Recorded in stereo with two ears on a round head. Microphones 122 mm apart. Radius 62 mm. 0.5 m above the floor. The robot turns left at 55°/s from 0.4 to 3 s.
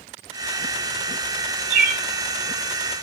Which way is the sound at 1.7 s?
60° right (ahead or behind).